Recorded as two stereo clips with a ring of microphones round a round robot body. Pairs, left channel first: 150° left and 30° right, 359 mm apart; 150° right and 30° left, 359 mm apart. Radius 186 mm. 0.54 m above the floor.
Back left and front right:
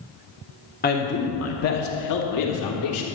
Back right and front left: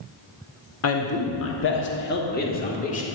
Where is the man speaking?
160° right, 1.2 m; by 3.0 s 145° left, 1.8 m.